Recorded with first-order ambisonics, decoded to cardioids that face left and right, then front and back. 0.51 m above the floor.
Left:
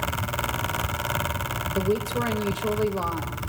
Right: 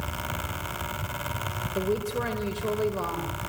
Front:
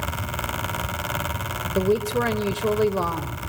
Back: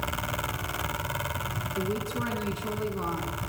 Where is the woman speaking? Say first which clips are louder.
Left 2 dB, front 11 dB; 10° left, 1.8 m.